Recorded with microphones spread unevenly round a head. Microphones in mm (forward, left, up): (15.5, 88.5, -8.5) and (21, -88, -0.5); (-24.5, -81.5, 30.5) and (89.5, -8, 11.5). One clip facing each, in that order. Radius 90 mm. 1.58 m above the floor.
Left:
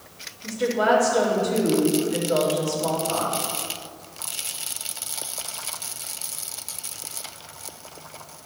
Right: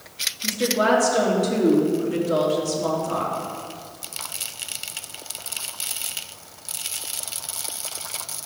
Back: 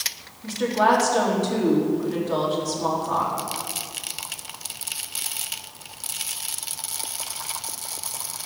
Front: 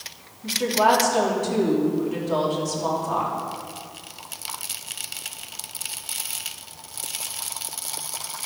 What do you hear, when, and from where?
0.4 s a woman speaking: 45° right, 3.5 m